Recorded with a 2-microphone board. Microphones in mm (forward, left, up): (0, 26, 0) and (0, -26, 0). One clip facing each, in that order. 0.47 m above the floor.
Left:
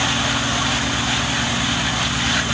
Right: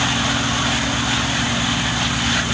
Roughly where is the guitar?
I don't hear a guitar.